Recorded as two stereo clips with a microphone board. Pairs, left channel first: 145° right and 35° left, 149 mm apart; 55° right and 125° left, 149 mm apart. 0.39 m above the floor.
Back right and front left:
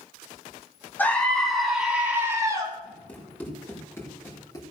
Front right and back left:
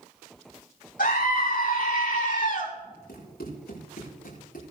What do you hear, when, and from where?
1.0 s a scream: 70° right, 4 m; by 2.7 s 30° right, 4 m
3.1 s running footsteps: 65° right, 7 m; by 4.6 s 80° right, 5.5 m